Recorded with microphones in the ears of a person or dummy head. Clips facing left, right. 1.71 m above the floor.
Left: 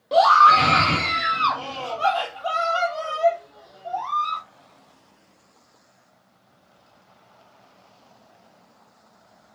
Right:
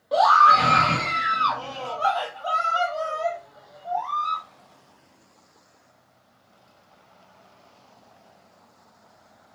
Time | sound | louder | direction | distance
0.1 | a scream | left 2 dB | 40° left (ahead or behind) | 1.1 m